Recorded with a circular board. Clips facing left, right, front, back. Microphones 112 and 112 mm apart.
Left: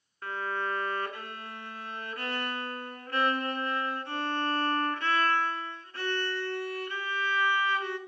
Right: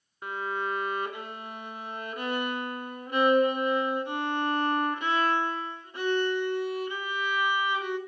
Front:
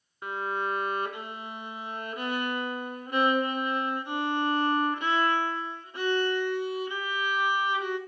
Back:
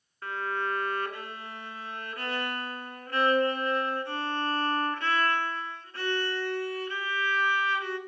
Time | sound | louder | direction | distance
0.2 | a violin | right 1 dB, front 1 dB | 45° right | 1.3 m